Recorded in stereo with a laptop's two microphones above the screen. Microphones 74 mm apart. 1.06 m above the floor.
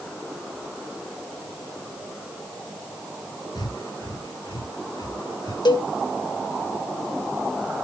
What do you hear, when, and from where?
3.5 s breathing: 75° left (ahead or behind), 4 m
5.7 s a cowbell: 80° left, 1.2 m